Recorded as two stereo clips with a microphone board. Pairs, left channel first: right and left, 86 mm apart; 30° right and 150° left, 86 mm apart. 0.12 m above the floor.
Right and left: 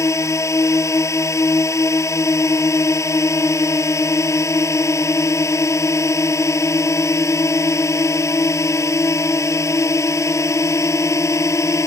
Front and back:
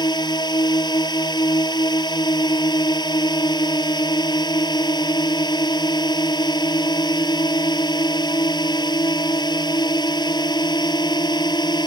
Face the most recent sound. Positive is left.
turn(degrees=-45)